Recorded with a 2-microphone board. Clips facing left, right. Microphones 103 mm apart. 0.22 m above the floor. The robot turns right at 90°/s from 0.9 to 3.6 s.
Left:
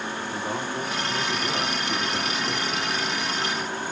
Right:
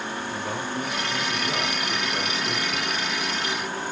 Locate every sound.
0.3 s a man speaking: 115° left, 1.9 m; by 3.0 s 55° right, 1.9 m